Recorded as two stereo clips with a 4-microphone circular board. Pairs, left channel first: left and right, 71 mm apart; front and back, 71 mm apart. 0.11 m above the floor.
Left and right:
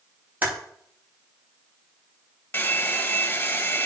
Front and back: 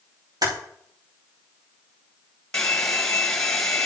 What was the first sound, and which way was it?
Typing on a keyboard, 155° right.